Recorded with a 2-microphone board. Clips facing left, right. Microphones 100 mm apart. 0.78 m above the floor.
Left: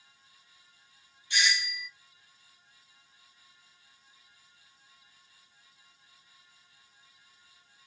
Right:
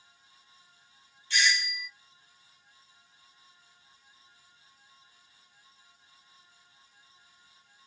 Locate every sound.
1.3 s a doorbell: 15° left (ahead or behind), 1.1 m